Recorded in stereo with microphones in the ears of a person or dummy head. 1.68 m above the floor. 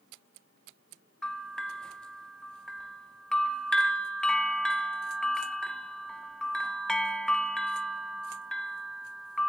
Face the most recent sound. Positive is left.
turn(degrees=0)  # may be behind; listen again after turning